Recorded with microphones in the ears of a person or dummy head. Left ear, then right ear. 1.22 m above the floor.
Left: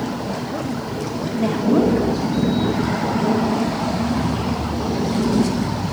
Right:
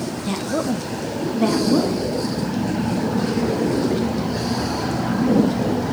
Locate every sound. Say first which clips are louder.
0.3 s a woman speaking: right 2 dB; 85° right, 1.0 m; by 2.0 s 5° left (ahead or behind), 2.0 m